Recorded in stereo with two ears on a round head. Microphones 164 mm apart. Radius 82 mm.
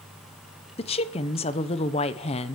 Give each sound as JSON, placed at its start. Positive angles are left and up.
{"t": 0.8, "sound": "a woman speaking", "side_deg": 30, "distance_m": 0.8}